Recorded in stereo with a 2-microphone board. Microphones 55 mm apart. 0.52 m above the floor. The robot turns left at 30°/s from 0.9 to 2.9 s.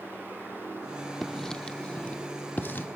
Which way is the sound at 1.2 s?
5° left (ahead or behind).